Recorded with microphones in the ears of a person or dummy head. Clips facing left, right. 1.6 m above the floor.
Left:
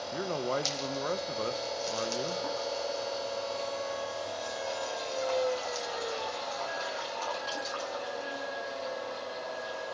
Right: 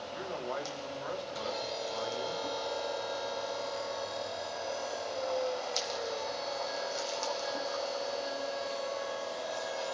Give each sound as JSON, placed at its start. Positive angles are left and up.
{"t": 0.1, "sound": "a man speaking", "side_deg": 50, "distance_m": 2.0}